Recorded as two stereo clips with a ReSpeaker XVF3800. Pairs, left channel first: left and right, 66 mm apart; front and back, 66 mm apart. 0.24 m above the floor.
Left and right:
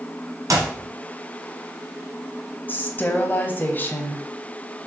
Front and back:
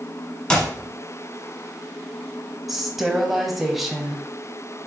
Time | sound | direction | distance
0.5 | a clap | 75° right | 1.7 m
2.7 | a woman speaking | 95° left | 1.1 m